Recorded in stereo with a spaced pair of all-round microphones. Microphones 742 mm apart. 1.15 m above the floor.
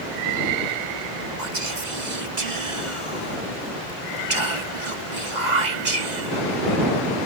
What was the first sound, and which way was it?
Whispering, 70° right (ahead or behind).